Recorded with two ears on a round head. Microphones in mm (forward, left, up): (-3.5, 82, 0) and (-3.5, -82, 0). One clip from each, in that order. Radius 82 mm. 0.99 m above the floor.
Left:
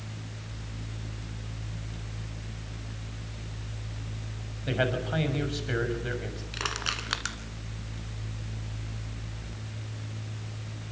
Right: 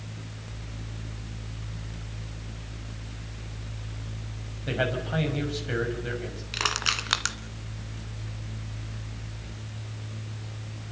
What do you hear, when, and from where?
4.7 s a man speaking: 5° left (ahead or behind), 6.5 m
6.5 s crushing: 25° right (ahead or behind), 2.0 m